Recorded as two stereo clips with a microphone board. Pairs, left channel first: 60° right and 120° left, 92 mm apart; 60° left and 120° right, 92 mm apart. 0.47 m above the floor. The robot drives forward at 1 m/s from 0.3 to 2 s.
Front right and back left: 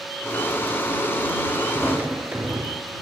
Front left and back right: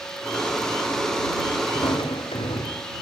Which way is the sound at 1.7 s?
45° left.